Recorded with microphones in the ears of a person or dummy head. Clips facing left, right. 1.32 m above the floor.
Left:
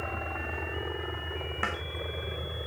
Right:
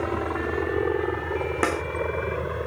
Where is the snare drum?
70° right (ahead or behind).